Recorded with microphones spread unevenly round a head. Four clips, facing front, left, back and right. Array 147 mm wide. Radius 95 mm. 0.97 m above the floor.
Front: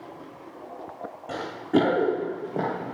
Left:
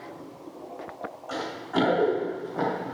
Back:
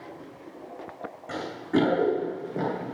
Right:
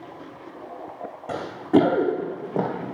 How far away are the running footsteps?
About 3 m.